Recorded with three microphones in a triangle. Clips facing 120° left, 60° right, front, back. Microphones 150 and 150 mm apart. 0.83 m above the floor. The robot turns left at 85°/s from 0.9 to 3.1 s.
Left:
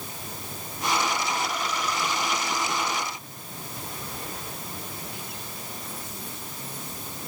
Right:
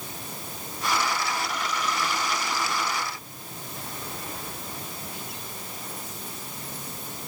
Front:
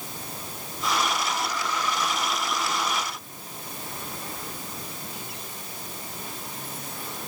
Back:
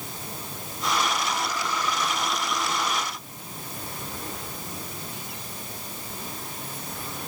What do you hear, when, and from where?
Only background noise.